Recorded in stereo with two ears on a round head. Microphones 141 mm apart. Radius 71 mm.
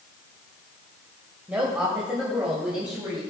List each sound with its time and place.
1.5 s a woman speaking: 10° right (ahead or behind), 2.5 m; by 3.2 s 5° right (ahead or behind), 3.5 m